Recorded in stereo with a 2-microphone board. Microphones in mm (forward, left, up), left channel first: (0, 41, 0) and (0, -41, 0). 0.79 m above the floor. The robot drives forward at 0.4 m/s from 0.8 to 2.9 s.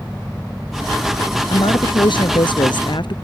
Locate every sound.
1.5 s a woman speaking: 70° left (ahead or behind); by 3.1 s 65° left (ahead or behind)